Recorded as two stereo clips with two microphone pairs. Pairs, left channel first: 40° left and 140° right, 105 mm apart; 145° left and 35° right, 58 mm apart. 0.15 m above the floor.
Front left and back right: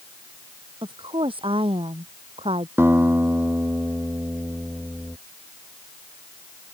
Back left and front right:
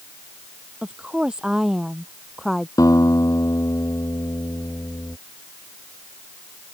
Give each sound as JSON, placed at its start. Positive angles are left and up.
{"t": 0.8, "sound": "a woman speaking", "azimuth_deg": -110}
{"t": 2.8, "sound": "a guitar", "azimuth_deg": 150}